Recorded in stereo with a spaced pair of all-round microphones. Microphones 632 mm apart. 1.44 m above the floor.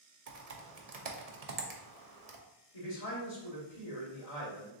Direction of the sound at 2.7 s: 70° left (ahead or behind).